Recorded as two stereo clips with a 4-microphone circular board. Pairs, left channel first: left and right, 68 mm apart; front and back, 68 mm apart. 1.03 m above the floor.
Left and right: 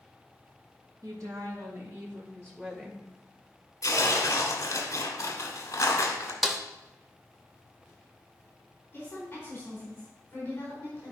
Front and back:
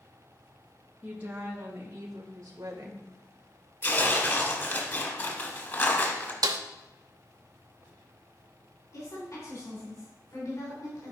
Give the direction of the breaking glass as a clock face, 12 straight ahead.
I don't hear breaking glass.